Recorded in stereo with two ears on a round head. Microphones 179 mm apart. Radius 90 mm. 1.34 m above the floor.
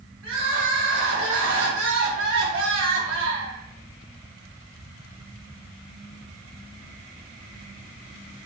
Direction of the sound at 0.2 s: 70° right (ahead or behind).